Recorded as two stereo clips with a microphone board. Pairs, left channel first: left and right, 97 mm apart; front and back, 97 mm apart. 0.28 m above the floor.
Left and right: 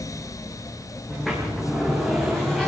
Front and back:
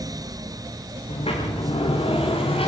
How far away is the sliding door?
About 9.5 m.